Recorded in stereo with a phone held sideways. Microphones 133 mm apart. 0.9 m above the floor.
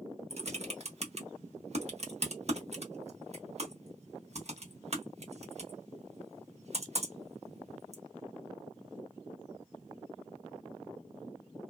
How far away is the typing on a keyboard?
About 0.7 m.